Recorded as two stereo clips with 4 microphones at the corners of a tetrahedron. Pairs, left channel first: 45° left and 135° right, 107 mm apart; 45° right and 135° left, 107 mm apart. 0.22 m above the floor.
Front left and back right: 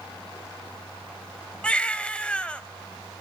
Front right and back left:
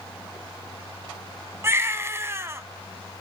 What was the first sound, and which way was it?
A baby crying, 115° left.